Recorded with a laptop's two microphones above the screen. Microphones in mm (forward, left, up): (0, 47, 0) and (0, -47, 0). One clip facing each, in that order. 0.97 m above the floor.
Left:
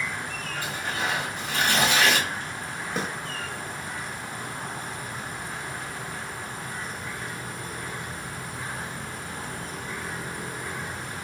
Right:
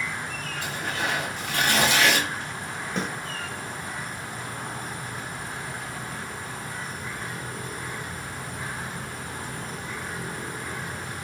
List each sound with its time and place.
0.6 s tearing paper: 70° right (ahead or behind), 1.6 m
3.0 s a snare drum: 5° left (ahead or behind), 0.7 m